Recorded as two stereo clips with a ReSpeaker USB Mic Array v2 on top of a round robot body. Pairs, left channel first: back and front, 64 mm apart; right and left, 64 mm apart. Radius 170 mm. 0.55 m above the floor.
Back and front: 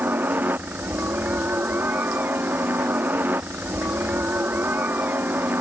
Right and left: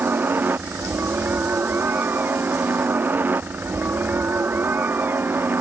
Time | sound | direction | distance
0.0 | a helicopter | 45° left | ?